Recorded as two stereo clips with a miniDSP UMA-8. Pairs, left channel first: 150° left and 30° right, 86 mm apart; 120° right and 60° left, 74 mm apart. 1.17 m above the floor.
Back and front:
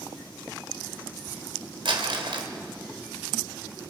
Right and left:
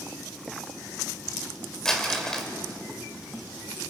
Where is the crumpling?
35° right, 2.5 m.